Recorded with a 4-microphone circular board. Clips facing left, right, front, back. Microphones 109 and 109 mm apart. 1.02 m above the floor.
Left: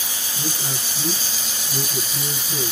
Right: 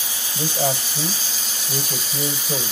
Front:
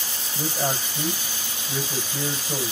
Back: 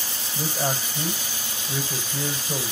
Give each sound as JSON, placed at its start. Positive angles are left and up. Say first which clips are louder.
{"t": 0.3, "sound": "a man speaking", "louder": "right 8 dB, even", "azimuth_deg": -100, "distance_m": 6.0}